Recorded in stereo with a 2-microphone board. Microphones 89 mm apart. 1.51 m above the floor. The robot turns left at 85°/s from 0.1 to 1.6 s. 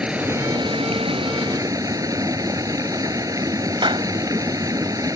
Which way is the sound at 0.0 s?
10° right.